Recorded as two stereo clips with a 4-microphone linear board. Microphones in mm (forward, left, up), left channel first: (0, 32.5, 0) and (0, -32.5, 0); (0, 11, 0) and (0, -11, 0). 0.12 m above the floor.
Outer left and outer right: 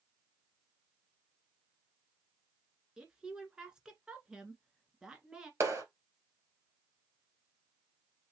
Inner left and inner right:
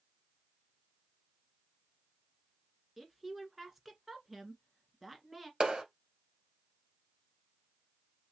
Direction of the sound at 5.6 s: 45° right (ahead or behind).